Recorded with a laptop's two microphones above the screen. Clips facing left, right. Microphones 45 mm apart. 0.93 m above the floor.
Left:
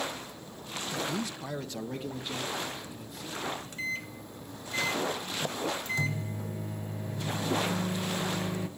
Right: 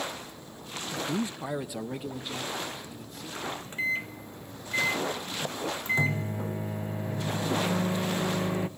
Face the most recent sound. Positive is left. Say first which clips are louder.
# right 4 dB
turn(degrees=-25)  # may be behind; listen again after turning